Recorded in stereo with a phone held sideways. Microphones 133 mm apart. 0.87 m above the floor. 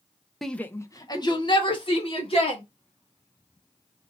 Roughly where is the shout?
Centre.